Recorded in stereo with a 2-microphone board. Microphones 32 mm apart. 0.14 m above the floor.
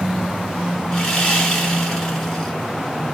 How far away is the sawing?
About 1.3 m.